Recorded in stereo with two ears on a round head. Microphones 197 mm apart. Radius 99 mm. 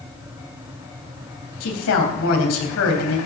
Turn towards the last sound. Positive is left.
turn(degrees=75)  # may be behind; listen again after turning